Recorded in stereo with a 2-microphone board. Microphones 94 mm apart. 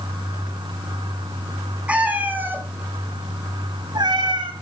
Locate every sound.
1.9 s a cat meowing: 15° right (ahead or behind), 2 m; by 4.5 s 60° right (ahead or behind), 1.6 m